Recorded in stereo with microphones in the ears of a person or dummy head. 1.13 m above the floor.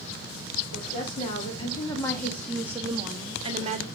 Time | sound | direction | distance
0.7 | a woman speaking | 40° left (ahead or behind) | 2.5 m